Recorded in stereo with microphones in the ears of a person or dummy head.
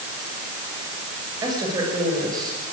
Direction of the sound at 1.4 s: 15° right (ahead or behind).